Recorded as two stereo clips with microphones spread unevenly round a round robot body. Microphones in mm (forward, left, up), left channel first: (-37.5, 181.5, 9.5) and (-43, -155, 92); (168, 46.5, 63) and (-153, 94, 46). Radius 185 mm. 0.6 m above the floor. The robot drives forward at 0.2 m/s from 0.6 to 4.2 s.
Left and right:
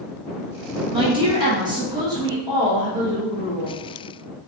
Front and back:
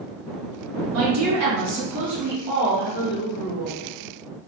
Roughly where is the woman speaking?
Behind.